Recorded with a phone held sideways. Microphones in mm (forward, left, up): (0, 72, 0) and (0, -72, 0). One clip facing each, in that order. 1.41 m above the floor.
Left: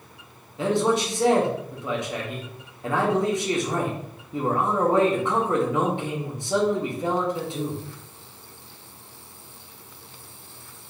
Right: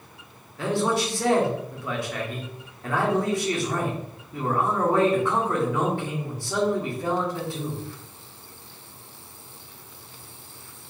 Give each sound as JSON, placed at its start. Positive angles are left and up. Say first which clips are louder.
{"t": 0.6, "sound": "a man speaking", "louder": "left 2 dB", "side_deg": 20, "distance_m": 0.9}